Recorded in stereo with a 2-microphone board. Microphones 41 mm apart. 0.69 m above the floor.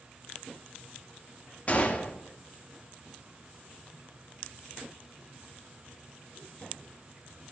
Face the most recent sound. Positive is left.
turn(degrees=35)  # may be behind; listen again after turning